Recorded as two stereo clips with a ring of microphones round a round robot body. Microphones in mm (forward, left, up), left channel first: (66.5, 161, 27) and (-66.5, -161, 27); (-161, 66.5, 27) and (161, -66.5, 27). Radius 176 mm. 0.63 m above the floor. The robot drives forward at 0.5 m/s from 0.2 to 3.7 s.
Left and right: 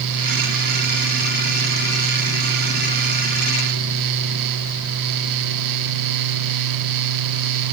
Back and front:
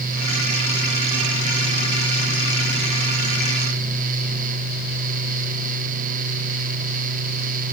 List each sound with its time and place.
Only background noise.